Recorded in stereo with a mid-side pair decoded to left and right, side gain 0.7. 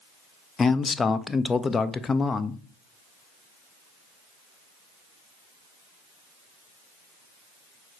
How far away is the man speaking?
About 0.7 m.